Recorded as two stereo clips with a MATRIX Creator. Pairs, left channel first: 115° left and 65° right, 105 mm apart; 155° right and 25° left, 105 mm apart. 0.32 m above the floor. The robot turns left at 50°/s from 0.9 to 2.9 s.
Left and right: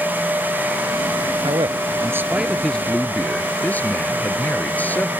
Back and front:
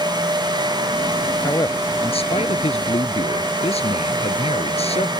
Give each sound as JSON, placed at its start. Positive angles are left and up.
{"t": 1.4, "sound": "a man speaking", "azimuth_deg": -100}